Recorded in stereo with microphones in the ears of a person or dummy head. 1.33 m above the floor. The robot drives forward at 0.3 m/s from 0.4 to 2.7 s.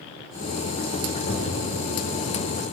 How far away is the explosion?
About 5 m.